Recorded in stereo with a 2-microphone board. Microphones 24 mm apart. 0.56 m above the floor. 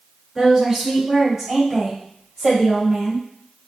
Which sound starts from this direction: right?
A woman speaking, at 0.3 s.